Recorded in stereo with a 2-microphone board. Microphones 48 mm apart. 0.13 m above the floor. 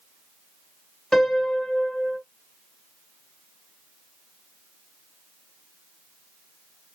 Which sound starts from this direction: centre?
A piano, at 1.1 s.